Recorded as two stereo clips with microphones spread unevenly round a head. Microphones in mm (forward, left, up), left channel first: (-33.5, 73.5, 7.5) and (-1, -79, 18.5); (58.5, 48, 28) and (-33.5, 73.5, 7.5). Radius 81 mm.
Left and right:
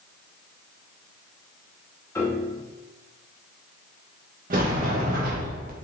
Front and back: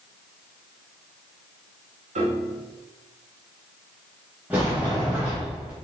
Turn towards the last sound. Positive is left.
turn(degrees=-110)